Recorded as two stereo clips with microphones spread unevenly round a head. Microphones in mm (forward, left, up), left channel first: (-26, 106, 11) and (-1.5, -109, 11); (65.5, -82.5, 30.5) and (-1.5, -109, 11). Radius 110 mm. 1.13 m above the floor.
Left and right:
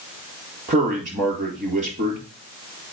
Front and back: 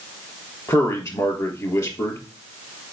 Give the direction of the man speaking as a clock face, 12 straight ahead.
1 o'clock.